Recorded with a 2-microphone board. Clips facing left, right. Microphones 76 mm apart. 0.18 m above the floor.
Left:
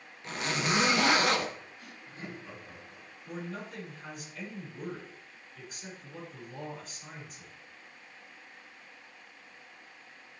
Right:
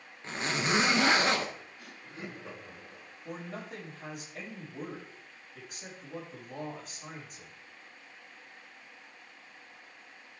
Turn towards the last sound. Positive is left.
turn(degrees=-60)  # may be behind; listen again after turning